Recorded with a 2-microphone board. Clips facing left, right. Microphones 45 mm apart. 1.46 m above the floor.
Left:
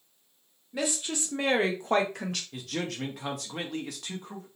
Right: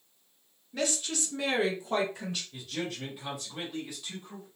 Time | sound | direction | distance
0.7 | a woman speaking | 10° left (ahead or behind) | 0.9 m
2.5 | a man speaking | 80° left | 0.7 m